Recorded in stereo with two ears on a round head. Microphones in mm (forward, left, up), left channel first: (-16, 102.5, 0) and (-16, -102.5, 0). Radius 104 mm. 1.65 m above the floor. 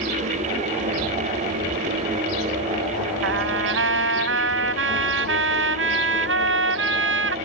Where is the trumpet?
60° right (ahead or behind).